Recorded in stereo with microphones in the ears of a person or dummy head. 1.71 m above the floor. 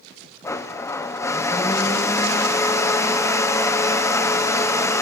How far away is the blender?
About 1.2 m.